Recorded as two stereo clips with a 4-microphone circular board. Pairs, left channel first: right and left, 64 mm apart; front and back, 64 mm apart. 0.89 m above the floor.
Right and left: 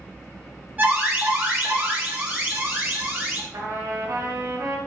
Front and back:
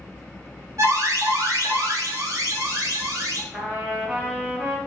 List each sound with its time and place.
0.8 s an alarm: 150° left, 3 m
3.5 s a trumpet: 115° left, 3.5 m